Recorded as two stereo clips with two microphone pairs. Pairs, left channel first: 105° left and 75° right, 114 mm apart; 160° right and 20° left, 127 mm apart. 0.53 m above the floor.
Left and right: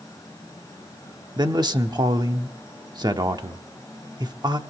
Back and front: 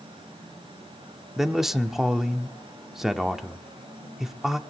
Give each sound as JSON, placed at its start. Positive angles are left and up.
{"t": 1.4, "sound": "a man speaking", "azimuth_deg": -60, "distance_m": 1.0}